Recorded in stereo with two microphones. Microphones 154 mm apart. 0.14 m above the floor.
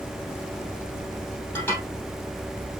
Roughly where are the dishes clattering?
Centre.